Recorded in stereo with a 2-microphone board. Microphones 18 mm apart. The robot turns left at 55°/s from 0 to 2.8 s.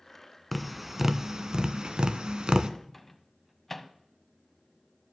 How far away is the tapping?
About 0.6 m.